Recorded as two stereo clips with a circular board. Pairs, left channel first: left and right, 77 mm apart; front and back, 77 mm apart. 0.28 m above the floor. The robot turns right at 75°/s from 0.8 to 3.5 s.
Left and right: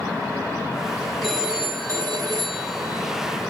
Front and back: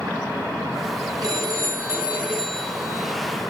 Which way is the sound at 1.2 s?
175° left.